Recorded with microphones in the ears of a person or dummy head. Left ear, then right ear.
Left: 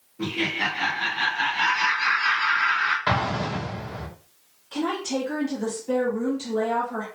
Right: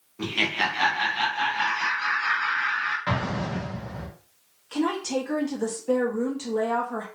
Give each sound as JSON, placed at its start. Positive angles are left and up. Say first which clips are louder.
{"t": 0.2, "sound": "laughter", "louder": "right 1 dB", "side_deg": -75, "distance_m": 0.8}
{"t": 3.1, "sound": "an explosion", "louder": "left 4 dB", "side_deg": 20, "distance_m": 1.0}
{"t": 4.7, "sound": "a woman speaking", "louder": "right 1 dB", "side_deg": -55, "distance_m": 1.0}